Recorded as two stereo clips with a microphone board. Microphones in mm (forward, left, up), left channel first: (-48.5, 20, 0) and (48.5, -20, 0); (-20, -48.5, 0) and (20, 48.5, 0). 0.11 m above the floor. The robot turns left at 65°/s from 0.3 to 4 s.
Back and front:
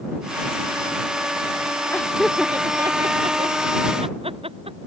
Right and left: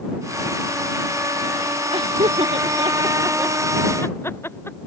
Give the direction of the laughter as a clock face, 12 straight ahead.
9 o'clock.